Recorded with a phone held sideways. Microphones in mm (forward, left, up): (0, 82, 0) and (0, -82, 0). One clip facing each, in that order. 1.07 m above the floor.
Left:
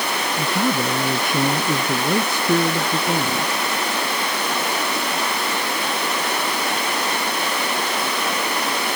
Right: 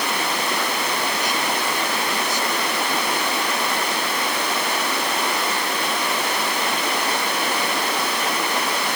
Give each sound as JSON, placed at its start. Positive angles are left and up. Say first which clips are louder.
{"t": 0.4, "sound": "a man speaking", "louder": "left 4 dB", "side_deg": 50}